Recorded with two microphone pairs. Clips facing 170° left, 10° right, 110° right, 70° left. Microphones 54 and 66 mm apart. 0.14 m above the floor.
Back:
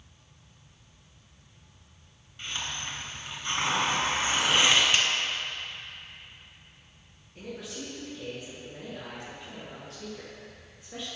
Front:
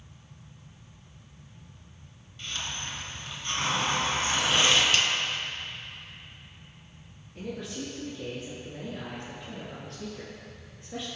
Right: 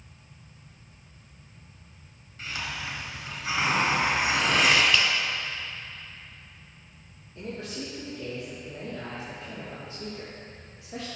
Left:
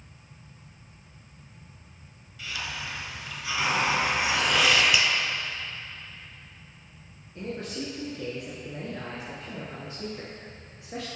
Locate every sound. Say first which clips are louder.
2.4 s a hiss: back 1 dB, right 1 dB; 155° right, 1.8 m
4.9 s a finger snap: even, even; 125° left, 0.8 m
7.3 s a man speaking: front 3 dB, left 2 dB; 80° left, 2 m